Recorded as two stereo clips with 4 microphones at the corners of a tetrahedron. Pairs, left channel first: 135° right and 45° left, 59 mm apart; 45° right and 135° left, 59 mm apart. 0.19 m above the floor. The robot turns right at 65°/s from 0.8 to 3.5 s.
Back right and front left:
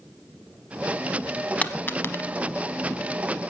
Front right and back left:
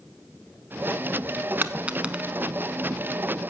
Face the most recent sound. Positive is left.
turn(degrees=-70)